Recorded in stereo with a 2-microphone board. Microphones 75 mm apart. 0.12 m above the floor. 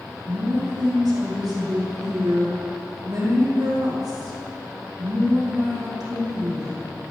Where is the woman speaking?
70° right (ahead or behind), 4.5 m.